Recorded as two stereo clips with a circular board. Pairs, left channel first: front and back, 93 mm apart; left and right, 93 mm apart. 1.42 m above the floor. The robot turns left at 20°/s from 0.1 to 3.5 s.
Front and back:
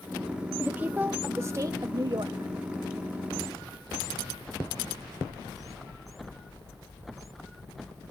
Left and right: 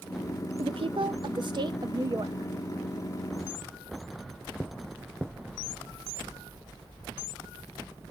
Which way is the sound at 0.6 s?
105° right.